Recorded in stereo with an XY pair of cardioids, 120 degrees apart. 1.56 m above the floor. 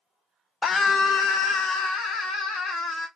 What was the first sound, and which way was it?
A scream, 35° left.